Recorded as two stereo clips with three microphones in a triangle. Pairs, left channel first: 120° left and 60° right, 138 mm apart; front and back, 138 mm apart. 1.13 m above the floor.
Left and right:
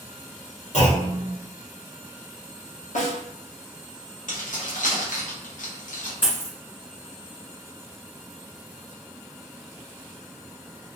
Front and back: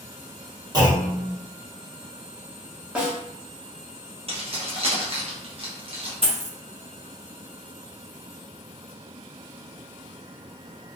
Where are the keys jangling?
135° left, 0.7 m.